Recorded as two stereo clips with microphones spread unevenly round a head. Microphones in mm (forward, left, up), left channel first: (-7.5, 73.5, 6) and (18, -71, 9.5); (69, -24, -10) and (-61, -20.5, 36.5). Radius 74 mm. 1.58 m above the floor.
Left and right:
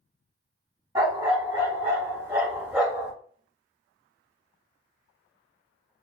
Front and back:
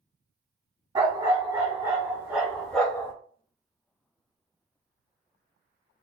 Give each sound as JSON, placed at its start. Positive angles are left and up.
{"t": 0.9, "sound": "a dog barking", "azimuth_deg": -145, "distance_m": 1.7}